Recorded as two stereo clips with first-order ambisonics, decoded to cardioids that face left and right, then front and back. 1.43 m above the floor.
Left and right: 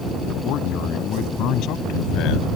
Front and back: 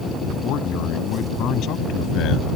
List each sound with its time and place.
0.4 s a man speaking: 45° left; by 2.5 s 50° left